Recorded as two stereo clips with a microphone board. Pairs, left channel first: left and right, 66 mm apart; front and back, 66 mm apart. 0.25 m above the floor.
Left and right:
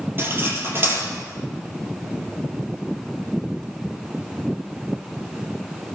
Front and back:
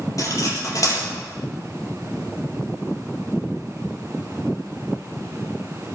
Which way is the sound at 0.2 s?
35° right.